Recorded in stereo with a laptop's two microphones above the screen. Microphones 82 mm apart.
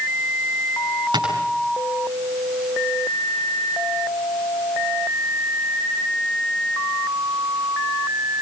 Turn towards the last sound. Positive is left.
turn(degrees=-65)  # may be behind; listen again after turning